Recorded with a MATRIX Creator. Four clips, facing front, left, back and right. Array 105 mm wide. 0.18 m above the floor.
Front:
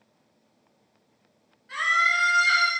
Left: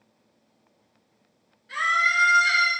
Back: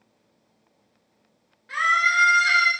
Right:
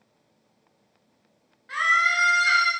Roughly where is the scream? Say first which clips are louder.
Right 1 dB, back 3 dB; behind right.